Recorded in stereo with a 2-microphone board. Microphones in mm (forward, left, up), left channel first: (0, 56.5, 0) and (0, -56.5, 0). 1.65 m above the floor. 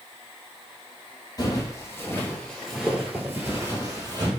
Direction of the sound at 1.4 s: 35° left (ahead or behind).